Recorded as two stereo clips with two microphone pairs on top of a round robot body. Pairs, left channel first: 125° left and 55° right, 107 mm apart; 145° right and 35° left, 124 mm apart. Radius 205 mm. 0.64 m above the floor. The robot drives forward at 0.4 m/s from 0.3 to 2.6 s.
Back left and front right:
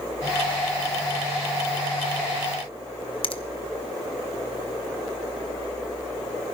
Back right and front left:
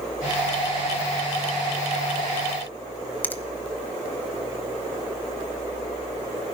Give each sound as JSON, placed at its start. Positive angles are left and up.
{"t": 3.2, "sound": "a finger snap", "azimuth_deg": 140, "distance_m": 1.3}